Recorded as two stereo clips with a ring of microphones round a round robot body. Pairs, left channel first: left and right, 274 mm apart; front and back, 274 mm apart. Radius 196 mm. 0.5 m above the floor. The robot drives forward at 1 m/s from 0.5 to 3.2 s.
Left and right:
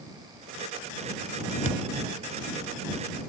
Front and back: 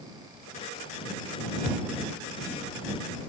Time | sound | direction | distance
1.6 | a thud | 115° right | ?